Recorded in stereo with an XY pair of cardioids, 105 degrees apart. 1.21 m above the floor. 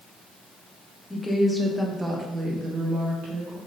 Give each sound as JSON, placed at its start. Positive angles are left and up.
{"t": 1.1, "sound": "a woman speaking", "azimuth_deg": 15, "distance_m": 1.9}